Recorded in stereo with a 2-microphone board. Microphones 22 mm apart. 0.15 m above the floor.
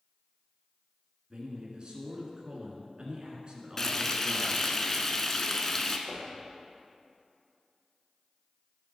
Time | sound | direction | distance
1.3 | a man speaking | 40° right (ahead or behind) | 2 m
3.8 | frying | 20° left (ahead or behind) | 0.7 m
6.1 | knocking | 45° left (ahead or behind) | 3 m